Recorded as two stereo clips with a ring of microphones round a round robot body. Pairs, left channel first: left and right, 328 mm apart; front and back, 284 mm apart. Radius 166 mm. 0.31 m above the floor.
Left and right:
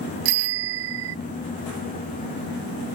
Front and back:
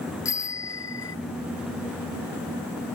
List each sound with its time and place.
0.2 s a bicycle bell: 80° right